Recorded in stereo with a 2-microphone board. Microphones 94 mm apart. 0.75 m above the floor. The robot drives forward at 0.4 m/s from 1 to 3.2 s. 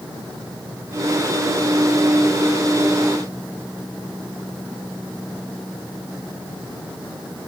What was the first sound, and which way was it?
Only background noise.